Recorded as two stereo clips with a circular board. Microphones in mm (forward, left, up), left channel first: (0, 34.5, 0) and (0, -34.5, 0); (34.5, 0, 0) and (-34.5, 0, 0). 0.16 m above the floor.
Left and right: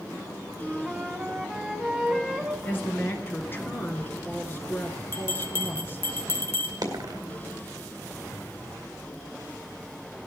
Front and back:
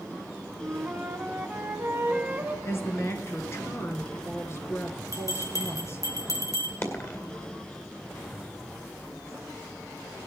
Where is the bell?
35° left, 1.7 m.